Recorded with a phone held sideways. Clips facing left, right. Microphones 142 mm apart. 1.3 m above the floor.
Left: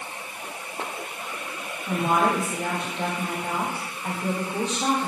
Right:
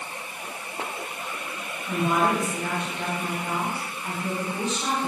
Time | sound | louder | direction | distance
1.9 | a woman speaking | left 1 dB | 40° left (ahead or behind) | 8 m